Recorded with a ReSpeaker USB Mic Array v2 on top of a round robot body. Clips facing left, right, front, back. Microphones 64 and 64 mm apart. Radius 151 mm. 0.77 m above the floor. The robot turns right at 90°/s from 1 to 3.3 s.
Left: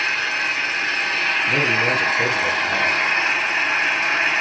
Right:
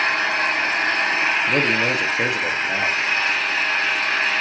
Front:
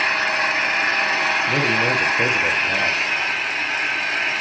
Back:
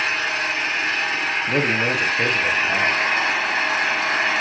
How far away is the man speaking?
About 0.8 m.